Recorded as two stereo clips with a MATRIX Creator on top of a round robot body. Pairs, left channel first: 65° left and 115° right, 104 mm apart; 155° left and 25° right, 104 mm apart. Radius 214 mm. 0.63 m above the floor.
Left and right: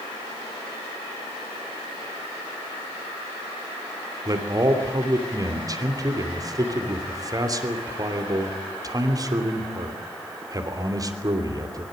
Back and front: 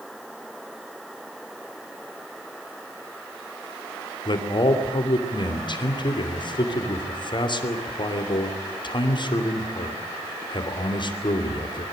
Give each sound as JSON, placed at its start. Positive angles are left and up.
{"t": 4.2, "sound": "a man speaking", "azimuth_deg": -165, "distance_m": 3.0}